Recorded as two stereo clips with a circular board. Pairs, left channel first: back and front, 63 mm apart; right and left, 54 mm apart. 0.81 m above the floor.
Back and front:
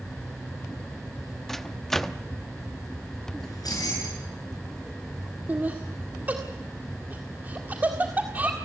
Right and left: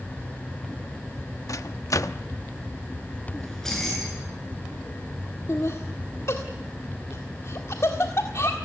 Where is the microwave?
95° right, 0.8 m.